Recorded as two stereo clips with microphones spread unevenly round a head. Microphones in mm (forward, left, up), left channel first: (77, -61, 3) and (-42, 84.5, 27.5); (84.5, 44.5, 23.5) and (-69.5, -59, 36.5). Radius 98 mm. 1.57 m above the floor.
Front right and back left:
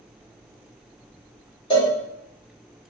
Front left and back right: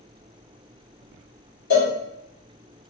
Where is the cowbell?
10° left, 1.5 m.